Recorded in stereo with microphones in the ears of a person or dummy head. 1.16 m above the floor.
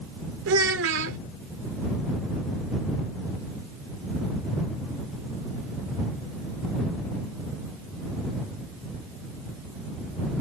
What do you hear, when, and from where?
0.5 s a child speaking: 80° right